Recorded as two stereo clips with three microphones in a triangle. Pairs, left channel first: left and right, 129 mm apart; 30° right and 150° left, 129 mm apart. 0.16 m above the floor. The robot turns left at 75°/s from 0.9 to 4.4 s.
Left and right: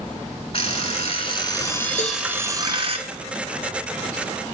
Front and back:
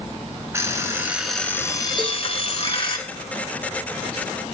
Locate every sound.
0.5 s an alarm clock: 90° left, 1.0 m; by 3.0 s 70° right, 1.0 m
2.0 s a cowbell: 105° left, 3.5 m; by 2.2 s 85° left, 3.5 m